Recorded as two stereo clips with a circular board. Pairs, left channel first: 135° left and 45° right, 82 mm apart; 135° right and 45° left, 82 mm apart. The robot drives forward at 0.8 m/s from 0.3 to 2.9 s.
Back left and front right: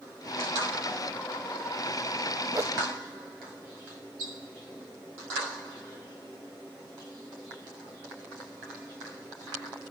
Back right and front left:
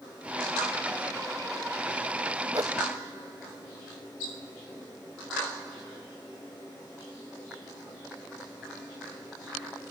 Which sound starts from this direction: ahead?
A whoosh, at 2.5 s.